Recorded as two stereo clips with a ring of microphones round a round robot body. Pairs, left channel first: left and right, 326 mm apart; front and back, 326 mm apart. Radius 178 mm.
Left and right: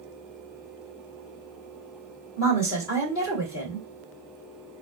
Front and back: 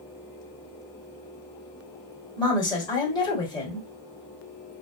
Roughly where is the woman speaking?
Left.